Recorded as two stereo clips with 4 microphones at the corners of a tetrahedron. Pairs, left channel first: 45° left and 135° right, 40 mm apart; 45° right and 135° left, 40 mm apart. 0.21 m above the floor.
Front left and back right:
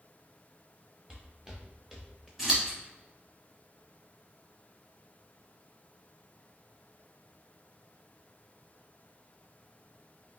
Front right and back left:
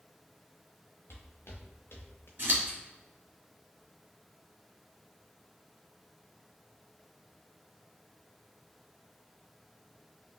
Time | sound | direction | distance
1.1 | footsteps | 65° right | 1.7 m
2.4 | scissors | 145° left | 1.6 m